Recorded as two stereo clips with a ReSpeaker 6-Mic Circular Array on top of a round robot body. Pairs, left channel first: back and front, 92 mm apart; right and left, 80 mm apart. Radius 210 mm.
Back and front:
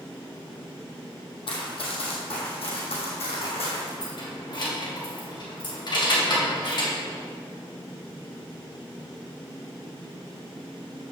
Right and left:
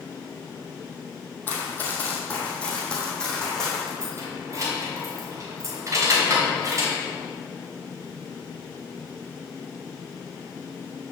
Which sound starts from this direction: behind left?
Keys jangling, at 4.0 s.